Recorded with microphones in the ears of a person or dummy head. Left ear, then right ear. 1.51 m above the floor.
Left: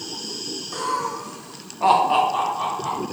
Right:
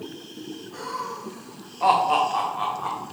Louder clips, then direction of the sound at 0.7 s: Left 6 dB; 55° left (ahead or behind).